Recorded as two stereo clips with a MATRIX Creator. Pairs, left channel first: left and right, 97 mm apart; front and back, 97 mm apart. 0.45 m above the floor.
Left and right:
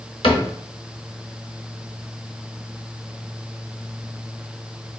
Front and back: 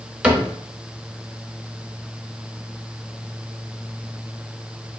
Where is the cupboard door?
105° left, 1.0 m.